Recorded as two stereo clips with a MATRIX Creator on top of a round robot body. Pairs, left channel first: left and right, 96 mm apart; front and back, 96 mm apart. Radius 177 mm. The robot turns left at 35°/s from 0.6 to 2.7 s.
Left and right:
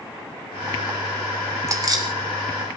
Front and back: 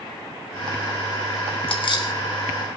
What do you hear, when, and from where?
1.7 s keys jangling: 30° right, 3 m; by 2.1 s 50° right, 3 m